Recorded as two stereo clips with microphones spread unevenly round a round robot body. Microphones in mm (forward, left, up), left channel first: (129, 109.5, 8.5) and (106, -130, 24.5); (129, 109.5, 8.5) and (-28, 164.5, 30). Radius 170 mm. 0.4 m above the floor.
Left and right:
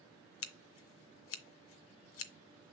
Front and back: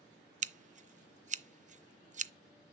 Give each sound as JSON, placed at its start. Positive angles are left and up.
{"t": 0.4, "sound": "scissors", "azimuth_deg": 110, "distance_m": 0.5}